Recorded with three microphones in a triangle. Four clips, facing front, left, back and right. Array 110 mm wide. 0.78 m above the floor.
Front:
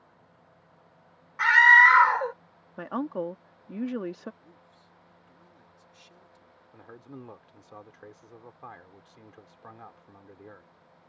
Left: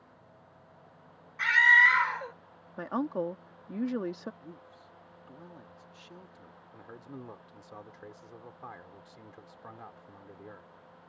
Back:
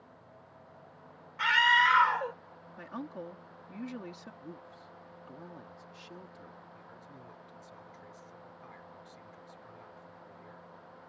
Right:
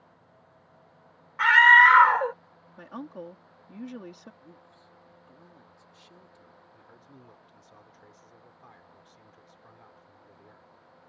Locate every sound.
1.4 s a scream: 65° right
2.8 s a woman speaking: 40° left
4.4 s a man speaking: 155° left
6.7 s a man speaking: 40° left